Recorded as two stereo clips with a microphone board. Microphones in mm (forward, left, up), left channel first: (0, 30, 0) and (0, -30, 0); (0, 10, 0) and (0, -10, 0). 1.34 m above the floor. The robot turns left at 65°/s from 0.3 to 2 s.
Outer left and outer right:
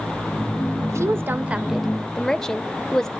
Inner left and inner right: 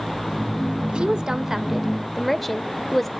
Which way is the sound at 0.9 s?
115° right.